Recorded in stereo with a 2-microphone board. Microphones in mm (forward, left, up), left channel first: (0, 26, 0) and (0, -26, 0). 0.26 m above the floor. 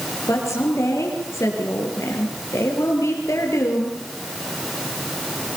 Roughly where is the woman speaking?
Left.